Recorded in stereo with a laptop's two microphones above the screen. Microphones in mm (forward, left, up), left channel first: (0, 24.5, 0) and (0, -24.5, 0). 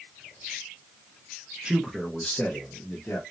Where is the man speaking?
15° right (ahead or behind), 0.5 m; by 3.2 s 50° left (ahead or behind), 0.9 m.